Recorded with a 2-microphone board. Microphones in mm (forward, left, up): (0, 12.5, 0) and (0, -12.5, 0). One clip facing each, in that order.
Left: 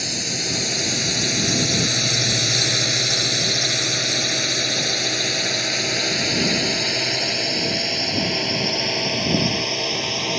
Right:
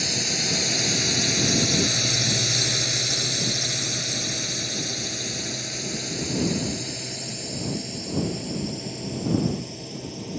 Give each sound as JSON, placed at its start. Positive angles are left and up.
{"t": 0.0, "sound": "a drone", "side_deg": 0}